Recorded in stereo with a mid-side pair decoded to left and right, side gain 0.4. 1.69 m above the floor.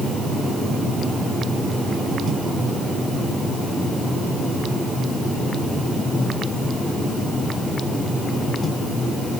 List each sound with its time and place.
Only background noise.